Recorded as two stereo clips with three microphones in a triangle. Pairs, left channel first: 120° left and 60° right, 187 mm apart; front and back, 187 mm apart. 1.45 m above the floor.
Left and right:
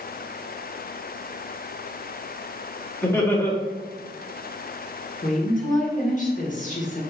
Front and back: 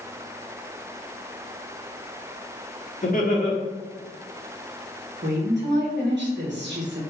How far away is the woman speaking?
About 1.1 m.